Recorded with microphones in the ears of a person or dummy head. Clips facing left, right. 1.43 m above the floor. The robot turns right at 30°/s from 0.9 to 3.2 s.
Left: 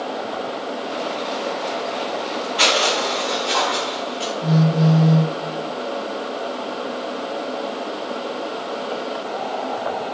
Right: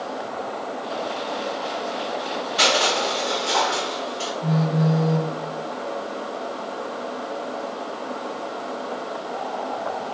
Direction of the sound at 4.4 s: 30° left (ahead or behind).